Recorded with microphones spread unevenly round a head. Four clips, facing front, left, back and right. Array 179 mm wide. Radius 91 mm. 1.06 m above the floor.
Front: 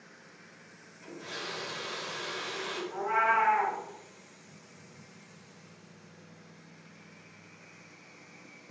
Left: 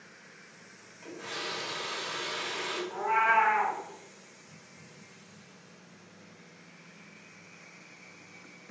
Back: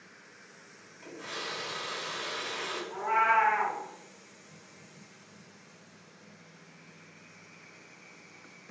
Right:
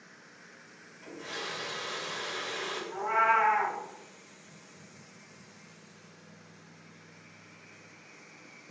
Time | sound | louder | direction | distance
1.0 | a running tap | left 1 dB, back 1 dB | 135° left | 1.7 m
2.9 | a cat meowing | left 1 dB, back 2 dB | 125° left | 2.0 m